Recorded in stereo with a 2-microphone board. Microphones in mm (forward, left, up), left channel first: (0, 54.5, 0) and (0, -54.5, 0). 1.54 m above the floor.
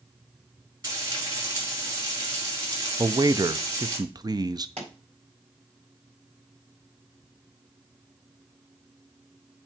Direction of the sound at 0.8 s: 40° right (ahead or behind).